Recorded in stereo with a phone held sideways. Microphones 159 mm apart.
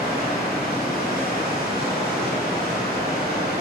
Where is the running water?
90° left, 1.8 m.